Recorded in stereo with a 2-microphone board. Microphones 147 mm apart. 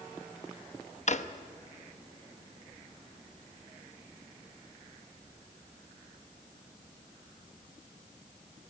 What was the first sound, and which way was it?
A drawer, 55° left (ahead or behind).